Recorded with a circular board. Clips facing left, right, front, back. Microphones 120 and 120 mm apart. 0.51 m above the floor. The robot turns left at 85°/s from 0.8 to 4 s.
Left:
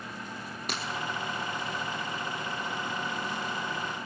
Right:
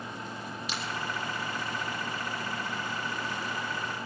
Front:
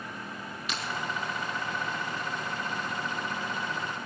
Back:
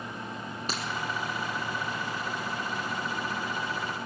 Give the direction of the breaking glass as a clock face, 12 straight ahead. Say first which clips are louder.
Left 3 dB, back 1 dB; 8 o'clock.